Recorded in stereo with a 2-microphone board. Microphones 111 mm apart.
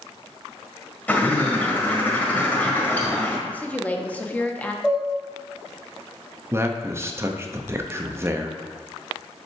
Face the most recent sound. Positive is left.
turn(degrees=-25)  # may be behind; listen again after turning